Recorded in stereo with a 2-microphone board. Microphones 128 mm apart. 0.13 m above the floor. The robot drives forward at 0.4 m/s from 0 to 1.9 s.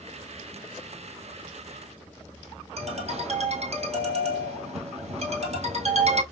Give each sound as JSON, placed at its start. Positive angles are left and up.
{"t": 2.8, "sound": "a ringtone", "side_deg": -60, "distance_m": 1.5}